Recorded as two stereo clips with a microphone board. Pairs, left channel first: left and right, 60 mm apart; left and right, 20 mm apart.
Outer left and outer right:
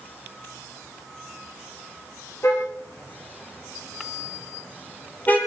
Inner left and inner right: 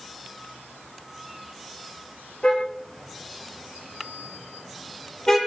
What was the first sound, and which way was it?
A car horn, 50° left (ahead or behind).